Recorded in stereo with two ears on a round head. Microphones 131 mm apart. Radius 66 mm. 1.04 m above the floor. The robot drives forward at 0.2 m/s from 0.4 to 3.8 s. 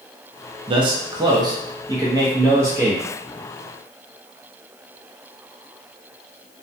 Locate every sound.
0.7 s a man speaking: 35° right (ahead or behind), 0.5 m; by 3.0 s 20° right (ahead or behind), 0.9 m